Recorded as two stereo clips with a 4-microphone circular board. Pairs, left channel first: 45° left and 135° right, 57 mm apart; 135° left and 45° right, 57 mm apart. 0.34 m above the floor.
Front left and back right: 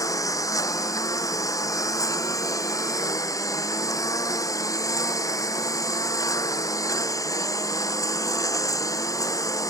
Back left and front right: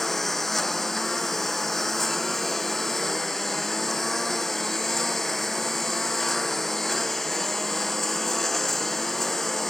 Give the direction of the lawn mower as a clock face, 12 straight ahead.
10 o'clock.